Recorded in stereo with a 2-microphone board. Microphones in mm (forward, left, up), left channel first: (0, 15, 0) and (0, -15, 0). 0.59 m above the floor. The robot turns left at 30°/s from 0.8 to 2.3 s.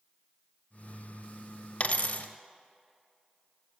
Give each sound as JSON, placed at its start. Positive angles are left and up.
{"t": 1.8, "sound": "a dropped coin", "side_deg": 45, "distance_m": 0.8}